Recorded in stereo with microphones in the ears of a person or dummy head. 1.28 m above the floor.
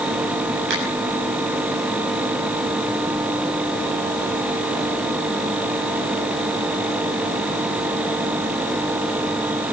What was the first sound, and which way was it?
A finger snap, 65° right (ahead or behind).